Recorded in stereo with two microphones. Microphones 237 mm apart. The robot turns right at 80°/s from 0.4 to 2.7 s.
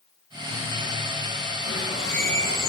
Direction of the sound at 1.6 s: 75° right.